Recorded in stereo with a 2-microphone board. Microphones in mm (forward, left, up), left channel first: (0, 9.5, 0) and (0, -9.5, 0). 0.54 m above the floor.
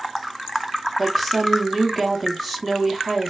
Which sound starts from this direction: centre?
A woman speaking, at 1.0 s.